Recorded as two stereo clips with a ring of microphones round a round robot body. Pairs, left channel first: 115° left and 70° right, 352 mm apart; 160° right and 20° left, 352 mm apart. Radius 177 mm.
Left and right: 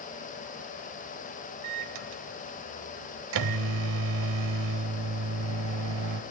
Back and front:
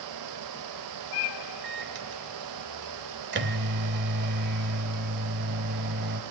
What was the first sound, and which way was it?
A microwave, 35° right.